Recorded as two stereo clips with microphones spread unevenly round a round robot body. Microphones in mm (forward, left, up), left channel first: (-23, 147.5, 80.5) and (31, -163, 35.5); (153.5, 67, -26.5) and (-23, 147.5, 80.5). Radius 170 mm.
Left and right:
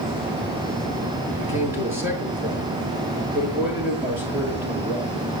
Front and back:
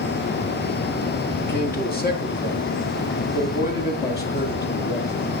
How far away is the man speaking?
About 7.5 m.